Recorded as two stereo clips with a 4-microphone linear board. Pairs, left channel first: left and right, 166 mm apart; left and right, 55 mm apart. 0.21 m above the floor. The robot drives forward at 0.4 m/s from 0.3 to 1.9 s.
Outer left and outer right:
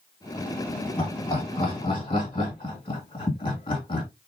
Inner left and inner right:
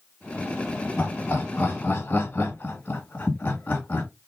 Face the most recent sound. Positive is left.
turn(degrees=30)  # may be behind; listen again after turning